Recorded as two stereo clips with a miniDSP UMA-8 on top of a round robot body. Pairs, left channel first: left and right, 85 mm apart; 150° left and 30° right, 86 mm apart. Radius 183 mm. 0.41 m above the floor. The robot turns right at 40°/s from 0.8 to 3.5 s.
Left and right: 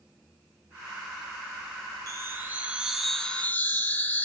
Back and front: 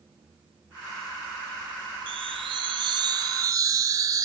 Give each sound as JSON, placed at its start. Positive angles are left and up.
{"t": 2.1, "sound": "a chime", "azimuth_deg": -40, "distance_m": 0.9}